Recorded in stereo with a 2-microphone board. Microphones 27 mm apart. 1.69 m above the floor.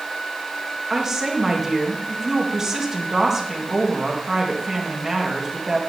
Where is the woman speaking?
20° right (ahead or behind), 2.5 m.